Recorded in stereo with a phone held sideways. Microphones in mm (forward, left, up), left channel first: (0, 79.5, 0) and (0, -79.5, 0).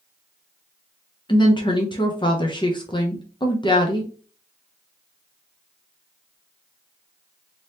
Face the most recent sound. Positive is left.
turn(degrees=30)  # may be behind; listen again after turning